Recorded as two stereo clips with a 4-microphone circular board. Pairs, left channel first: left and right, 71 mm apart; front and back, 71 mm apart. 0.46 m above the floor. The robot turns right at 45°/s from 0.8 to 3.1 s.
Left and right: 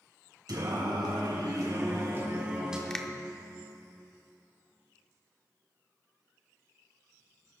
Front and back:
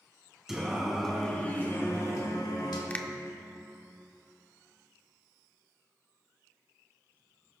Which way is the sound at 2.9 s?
20° left.